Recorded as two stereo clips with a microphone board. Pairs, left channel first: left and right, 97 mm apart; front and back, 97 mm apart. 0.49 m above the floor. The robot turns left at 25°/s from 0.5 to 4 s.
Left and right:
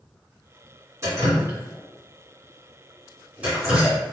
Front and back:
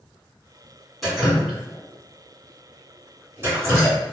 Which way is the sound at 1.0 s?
90° right.